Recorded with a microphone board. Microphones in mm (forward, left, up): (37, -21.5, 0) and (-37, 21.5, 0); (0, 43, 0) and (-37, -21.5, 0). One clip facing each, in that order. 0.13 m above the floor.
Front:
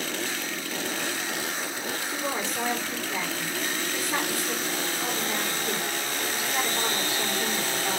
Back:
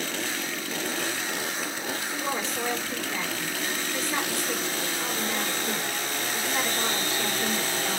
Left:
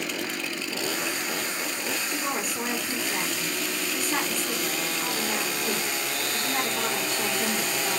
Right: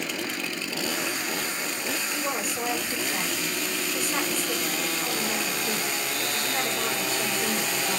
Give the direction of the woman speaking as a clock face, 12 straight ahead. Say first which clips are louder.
Even, even; 11 o'clock.